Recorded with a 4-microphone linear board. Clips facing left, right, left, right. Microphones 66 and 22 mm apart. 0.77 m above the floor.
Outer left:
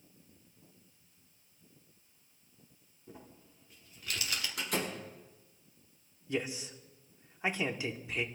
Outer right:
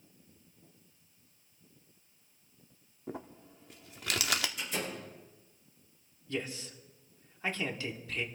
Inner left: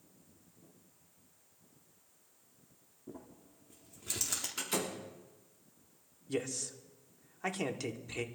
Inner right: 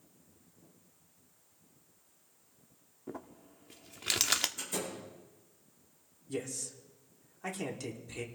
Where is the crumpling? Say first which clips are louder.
Outer right 10 dB, inner right 5 dB; 85° right, 0.8 m.